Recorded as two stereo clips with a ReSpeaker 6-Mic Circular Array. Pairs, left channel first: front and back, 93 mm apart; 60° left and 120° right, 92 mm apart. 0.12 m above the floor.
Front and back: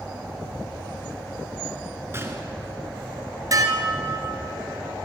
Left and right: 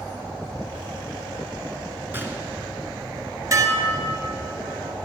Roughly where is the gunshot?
Behind right.